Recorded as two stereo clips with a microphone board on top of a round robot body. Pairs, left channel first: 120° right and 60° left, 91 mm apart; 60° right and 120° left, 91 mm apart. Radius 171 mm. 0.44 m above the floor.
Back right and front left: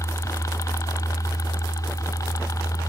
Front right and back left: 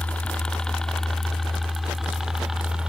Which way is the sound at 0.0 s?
125° right.